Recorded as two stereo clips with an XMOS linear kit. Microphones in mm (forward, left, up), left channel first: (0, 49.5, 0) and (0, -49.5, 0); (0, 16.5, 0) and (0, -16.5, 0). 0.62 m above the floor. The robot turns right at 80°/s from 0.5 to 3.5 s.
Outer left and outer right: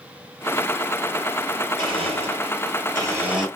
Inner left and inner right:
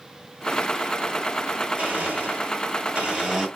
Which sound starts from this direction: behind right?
A blender, at 1.8 s.